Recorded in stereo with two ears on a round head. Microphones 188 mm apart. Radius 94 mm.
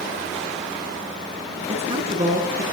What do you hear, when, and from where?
1.7 s a woman speaking: 30° right (ahead or behind), 8 m